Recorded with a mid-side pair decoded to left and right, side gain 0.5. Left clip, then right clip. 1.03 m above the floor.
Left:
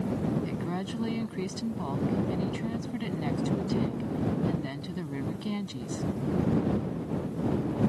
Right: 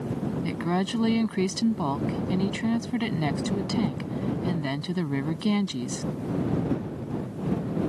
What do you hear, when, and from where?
0.4 s a woman speaking: 50° right